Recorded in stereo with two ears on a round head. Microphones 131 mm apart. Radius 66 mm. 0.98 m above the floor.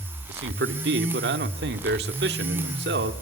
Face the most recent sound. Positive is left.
turn(degrees=-85)